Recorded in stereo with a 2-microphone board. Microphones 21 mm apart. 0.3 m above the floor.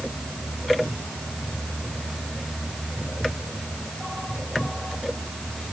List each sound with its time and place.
Only background noise.